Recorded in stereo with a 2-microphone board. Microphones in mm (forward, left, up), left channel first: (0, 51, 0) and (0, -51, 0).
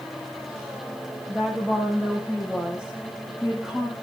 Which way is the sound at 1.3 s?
10° right (ahead or behind).